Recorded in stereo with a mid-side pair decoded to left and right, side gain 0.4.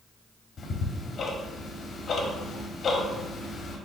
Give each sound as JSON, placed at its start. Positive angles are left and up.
{"t": 0.6, "sound": "ticking", "azimuth_deg": 60, "distance_m": 1.1}